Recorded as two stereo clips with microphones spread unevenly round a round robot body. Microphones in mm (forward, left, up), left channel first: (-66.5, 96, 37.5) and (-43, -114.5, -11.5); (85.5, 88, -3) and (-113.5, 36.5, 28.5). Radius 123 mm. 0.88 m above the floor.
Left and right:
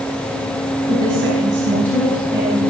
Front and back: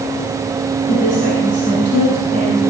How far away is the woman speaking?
About 4.5 m.